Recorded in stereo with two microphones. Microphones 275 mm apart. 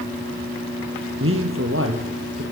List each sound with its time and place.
1.2 s a man speaking: 50° right (ahead or behind), 3.5 m